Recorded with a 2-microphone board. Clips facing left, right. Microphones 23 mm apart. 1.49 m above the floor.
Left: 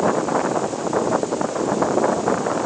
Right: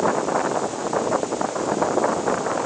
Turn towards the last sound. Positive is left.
No sound to turn to.